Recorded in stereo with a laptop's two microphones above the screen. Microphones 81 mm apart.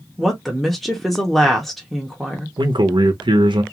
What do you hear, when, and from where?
0.2 s a woman speaking: centre (ahead or behind), 0.7 m
2.6 s a man speaking: 75° right (ahead or behind), 0.7 m